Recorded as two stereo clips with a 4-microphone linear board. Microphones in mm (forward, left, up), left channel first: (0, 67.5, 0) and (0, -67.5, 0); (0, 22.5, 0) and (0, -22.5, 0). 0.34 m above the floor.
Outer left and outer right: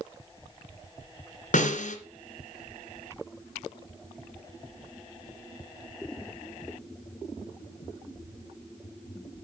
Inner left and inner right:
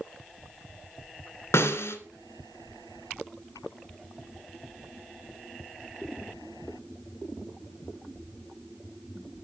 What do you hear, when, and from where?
1.5 s a snare drum: 70° left (ahead or behind), 2 m